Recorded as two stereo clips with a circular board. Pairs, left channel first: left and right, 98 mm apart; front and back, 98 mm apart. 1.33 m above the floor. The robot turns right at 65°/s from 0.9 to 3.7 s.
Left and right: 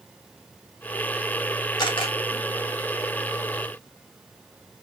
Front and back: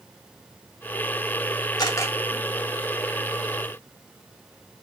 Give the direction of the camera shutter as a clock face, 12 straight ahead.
10 o'clock.